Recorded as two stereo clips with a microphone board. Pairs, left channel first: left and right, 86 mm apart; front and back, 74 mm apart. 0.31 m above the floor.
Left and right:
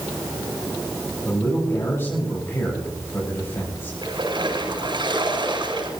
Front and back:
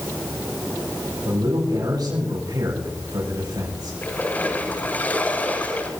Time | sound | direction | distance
1.2 | a man speaking | 150° left | 8.5 m
4.0 | a splash | 70° right | 6.5 m